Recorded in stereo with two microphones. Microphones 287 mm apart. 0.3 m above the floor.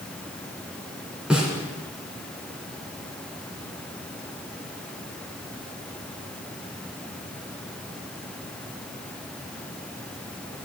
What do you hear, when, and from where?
1.3 s a snare drum: 5° right (ahead or behind), 3.5 m